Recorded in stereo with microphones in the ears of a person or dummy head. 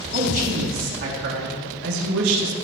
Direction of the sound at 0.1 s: 45° right (ahead or behind).